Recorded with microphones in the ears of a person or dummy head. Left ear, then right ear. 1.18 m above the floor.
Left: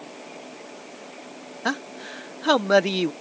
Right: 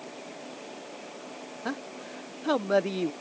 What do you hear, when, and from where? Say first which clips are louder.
1.6 s a man speaking: left 9 dB; 40° left (ahead or behind)